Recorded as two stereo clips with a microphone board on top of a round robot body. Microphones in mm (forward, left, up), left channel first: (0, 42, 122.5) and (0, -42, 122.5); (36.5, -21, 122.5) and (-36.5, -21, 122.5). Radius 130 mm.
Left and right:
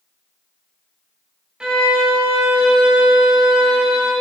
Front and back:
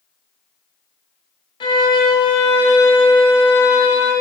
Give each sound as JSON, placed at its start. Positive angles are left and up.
{"t": 1.6, "sound": "a violin", "azimuth_deg": -10, "distance_m": 1.1}